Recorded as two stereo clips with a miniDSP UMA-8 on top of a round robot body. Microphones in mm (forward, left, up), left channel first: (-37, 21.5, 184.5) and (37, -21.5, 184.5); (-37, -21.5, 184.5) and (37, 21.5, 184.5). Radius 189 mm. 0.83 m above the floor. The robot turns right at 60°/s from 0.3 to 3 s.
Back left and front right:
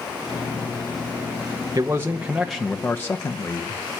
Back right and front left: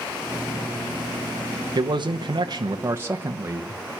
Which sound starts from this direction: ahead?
A man speaking, at 1.8 s.